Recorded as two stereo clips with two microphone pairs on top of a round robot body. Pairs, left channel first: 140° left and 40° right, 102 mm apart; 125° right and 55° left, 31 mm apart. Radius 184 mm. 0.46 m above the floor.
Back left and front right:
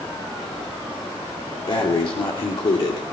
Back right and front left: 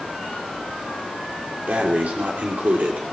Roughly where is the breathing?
Left.